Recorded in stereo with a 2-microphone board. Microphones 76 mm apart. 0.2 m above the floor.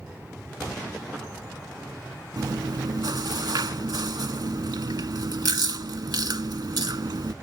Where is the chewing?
65° right (ahead or behind).